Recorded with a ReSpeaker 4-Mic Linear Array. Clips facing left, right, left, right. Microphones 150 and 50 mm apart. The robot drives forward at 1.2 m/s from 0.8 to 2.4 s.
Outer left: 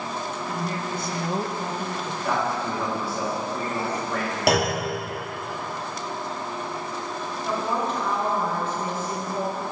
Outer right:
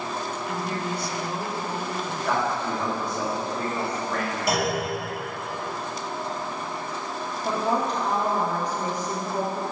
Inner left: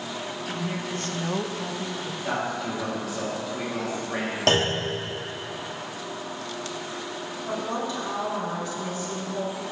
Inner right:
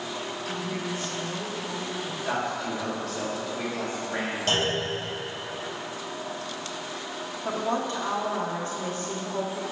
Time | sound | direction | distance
0.5 | a woman speaking | 40° left (ahead or behind) | 0.9 m
2.2 | a man speaking | 5° left (ahead or behind) | 2 m
4.5 | a clunk | 75° left (ahead or behind) | 1.1 m
7.5 | a woman speaking | 40° right (ahead or behind) | 1.1 m